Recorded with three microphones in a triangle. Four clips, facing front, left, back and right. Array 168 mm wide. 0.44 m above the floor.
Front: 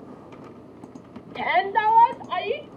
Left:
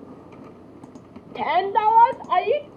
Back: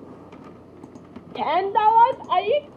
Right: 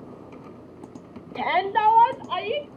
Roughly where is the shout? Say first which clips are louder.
Left 2 dB, back 2 dB; behind.